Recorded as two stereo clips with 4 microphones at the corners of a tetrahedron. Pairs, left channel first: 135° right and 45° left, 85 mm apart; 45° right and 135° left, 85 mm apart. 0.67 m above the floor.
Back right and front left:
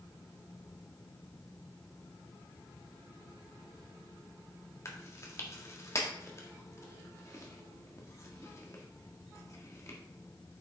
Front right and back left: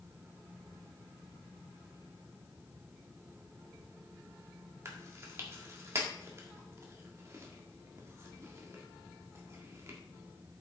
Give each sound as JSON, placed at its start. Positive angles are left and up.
{"t": 4.8, "sound": "chewing", "azimuth_deg": 180, "distance_m": 1.4}